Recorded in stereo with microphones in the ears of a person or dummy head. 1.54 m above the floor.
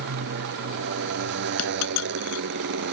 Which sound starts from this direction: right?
A motorcycle, at 0.0 s.